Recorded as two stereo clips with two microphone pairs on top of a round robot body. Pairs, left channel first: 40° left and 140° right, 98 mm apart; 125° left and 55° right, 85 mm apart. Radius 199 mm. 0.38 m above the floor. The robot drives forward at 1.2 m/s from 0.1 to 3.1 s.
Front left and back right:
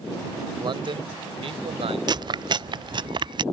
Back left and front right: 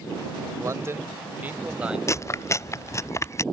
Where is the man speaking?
105° right; by 2.0 s 135° right.